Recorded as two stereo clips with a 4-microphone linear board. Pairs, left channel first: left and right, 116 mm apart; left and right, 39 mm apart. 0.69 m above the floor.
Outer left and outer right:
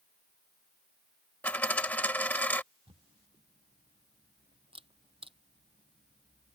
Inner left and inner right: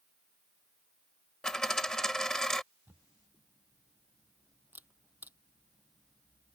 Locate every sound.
1.4 s a dropped coin: 15° left (ahead or behind)
2.9 s a camera shutter: 50° right (ahead or behind)